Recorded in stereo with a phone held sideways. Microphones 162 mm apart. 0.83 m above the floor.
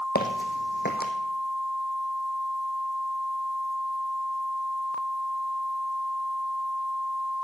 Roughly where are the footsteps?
Left.